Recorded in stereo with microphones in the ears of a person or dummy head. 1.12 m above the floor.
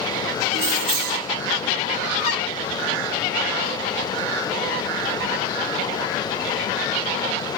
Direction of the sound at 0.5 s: 60° right (ahead or behind).